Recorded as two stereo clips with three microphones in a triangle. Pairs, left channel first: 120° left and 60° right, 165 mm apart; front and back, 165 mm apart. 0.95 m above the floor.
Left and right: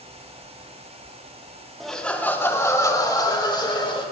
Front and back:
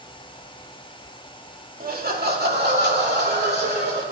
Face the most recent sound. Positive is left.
turn(degrees=180)